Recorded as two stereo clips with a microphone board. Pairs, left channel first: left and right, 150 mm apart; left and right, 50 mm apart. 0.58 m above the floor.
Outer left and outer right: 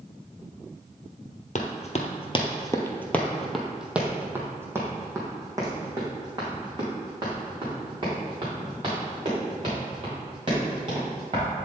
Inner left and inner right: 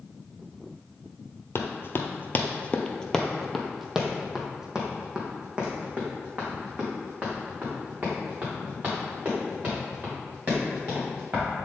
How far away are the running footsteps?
About 0.9 m.